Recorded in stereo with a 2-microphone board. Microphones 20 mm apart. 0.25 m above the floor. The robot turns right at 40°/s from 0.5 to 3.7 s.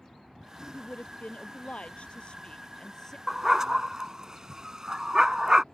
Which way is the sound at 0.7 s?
65° left.